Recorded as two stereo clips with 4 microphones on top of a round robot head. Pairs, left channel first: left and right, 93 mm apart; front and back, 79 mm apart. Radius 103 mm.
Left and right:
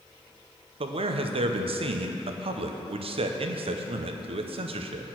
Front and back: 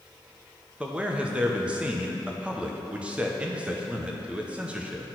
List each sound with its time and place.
0.8 s a man speaking: 105° right, 0.7 m